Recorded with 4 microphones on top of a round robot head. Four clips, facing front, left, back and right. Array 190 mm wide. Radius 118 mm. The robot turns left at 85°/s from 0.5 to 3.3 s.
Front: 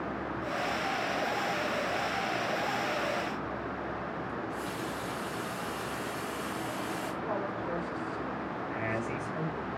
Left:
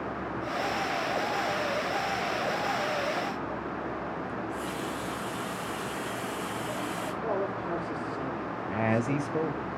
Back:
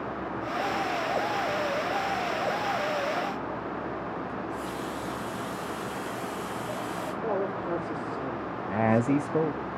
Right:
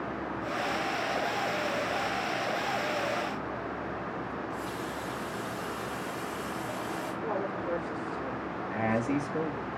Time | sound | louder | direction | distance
4.3 | a running tap | left 2 dB, back 2 dB | 70° left | 2 m
7.2 | a man speaking | left 2 dB, back 7 dB | 145° left | 4.5 m
8.7 | a man speaking | left 1 dB, back 13 dB | 170° left | 1.0 m